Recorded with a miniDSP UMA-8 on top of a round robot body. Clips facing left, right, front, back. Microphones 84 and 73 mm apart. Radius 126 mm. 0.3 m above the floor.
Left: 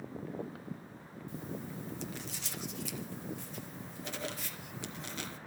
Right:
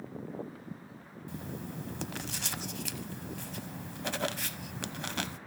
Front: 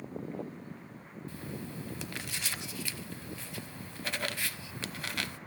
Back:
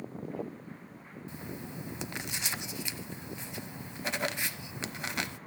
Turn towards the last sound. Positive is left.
turn(degrees=-110)